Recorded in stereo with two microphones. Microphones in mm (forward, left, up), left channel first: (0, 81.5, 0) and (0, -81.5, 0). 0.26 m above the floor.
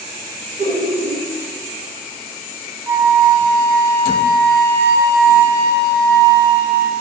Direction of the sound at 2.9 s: 20° right (ahead or behind).